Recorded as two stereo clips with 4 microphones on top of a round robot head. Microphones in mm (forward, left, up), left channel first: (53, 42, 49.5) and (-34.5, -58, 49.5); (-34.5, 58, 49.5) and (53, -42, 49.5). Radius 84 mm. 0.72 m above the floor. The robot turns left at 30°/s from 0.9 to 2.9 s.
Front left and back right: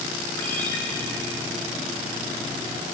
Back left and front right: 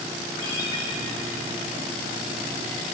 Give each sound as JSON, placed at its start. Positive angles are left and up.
{"t": 0.4, "sound": "a ringtone", "azimuth_deg": 120, "distance_m": 3.0}